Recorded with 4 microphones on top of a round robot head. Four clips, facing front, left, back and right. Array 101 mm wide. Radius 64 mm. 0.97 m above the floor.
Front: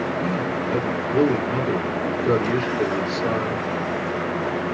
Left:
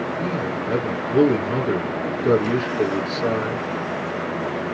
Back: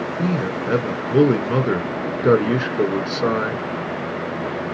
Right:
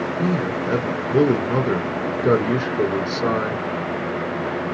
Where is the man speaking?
155° right, 1.6 m.